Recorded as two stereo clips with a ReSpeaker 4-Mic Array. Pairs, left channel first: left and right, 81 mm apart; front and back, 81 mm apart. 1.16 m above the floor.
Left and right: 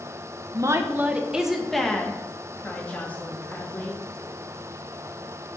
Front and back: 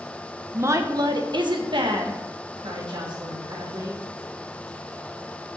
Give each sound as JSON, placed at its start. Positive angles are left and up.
{"t": 0.5, "sound": "a woman speaking", "azimuth_deg": -125, "distance_m": 1.0}